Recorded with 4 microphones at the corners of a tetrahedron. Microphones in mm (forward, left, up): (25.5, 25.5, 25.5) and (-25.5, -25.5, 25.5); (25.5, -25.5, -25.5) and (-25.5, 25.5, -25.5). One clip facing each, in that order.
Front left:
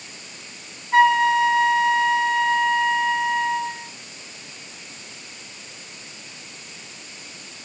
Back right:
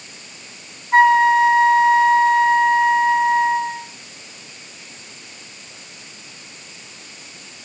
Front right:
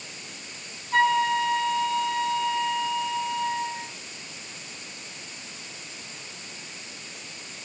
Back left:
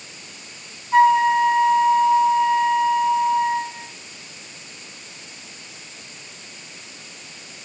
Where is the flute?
170° right, 1.2 m.